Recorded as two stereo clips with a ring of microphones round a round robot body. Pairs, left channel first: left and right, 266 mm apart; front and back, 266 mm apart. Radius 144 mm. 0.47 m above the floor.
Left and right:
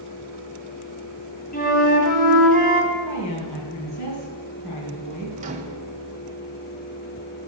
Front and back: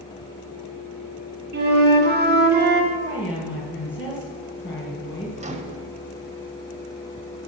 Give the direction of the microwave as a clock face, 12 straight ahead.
4 o'clock.